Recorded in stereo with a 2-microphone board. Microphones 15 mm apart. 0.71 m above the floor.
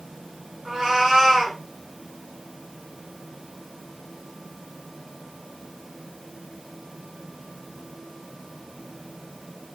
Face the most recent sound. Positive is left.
turn(degrees=-75)  # may be behind; listen again after turning